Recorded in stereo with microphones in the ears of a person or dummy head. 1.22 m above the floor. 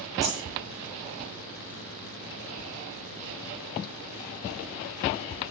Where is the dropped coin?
10° right (ahead or behind), 5.5 m.